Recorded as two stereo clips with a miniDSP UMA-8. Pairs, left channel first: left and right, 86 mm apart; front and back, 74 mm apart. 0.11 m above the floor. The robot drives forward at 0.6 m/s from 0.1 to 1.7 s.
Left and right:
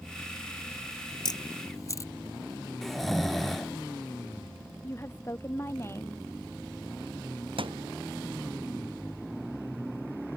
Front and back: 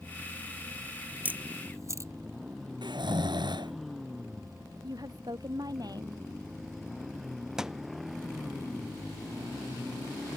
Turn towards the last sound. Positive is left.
turn(degrees=-95)